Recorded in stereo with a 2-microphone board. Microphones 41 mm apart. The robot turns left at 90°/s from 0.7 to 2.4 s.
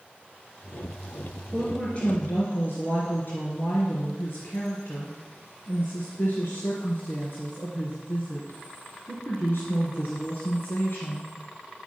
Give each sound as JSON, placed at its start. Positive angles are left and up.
{"t": 1.5, "sound": "a woman speaking", "azimuth_deg": -175, "distance_m": 3.0}